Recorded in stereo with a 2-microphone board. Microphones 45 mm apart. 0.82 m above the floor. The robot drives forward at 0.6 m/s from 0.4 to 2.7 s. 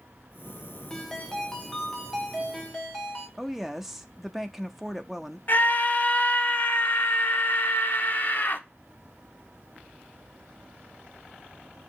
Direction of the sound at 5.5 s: 40° left (ahead or behind).